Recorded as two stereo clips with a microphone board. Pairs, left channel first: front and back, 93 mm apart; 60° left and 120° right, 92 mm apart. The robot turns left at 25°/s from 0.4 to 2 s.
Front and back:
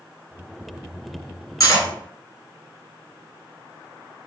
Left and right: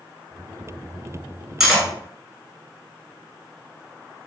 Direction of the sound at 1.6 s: 35° right.